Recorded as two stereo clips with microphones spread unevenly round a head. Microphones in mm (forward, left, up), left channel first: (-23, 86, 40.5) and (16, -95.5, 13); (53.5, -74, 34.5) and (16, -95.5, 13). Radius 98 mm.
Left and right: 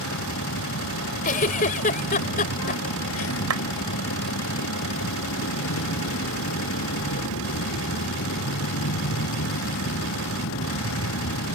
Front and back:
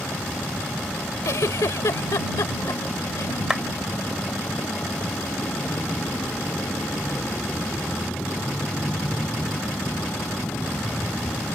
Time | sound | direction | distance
0.0 | a vehicle | 85° left | ?
1.2 | a giggle | 50° left | ?
3.5 | a clap | 65° right | ?